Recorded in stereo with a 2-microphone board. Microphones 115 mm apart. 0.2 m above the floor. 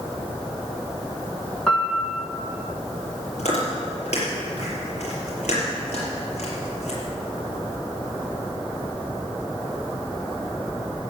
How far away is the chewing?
About 5.5 m.